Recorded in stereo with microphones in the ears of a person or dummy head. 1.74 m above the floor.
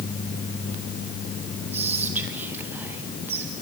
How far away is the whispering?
About 1.9 m.